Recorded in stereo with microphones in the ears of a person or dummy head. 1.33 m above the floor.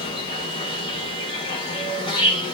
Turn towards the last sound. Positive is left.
turn(degrees=25)  # may be behind; listen again after turning